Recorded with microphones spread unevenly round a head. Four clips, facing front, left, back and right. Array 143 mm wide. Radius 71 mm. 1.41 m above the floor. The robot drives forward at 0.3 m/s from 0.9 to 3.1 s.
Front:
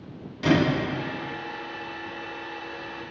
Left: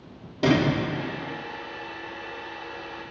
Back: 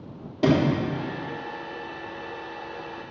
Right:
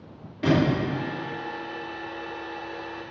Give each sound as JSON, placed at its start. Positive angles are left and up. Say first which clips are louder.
{"t": 0.4, "sound": "a sliding door", "louder": "even, back 1 dB", "azimuth_deg": 155, "distance_m": 3.5}